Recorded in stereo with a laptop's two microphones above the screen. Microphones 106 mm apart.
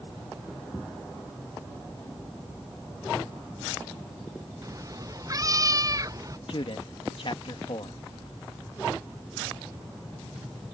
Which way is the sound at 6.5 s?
60° left (ahead or behind).